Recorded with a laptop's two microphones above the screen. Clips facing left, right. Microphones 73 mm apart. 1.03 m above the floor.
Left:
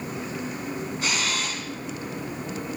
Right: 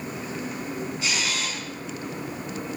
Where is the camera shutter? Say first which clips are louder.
Left 2 dB; 50° left (ahead or behind), 7 m.